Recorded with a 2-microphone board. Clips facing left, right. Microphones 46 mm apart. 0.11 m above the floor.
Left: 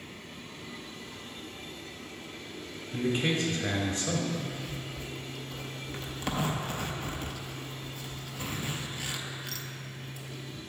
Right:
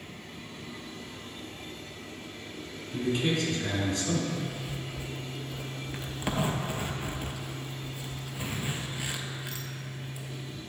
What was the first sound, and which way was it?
A man speaking, 20° left (ahead or behind).